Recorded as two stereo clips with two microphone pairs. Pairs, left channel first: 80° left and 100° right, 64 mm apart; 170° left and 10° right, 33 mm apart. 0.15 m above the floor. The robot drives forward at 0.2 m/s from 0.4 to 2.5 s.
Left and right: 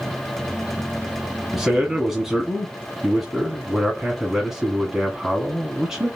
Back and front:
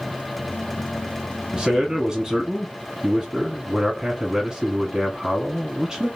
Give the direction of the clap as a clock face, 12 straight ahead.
I don't hear a clap.